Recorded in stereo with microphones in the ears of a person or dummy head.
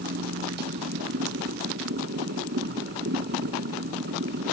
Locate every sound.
0.0 s a machine running: 55° right (ahead or behind)